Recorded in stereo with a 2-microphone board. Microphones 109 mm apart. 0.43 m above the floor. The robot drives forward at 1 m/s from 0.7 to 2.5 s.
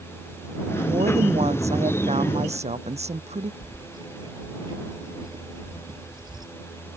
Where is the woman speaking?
80° right; by 3.5 s 85° right.